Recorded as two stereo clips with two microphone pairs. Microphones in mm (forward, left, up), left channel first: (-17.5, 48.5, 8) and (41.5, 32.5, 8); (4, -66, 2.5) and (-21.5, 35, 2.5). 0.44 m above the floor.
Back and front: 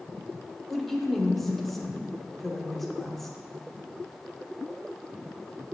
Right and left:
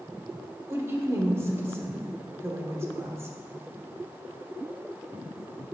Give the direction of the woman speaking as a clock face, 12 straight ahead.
9 o'clock.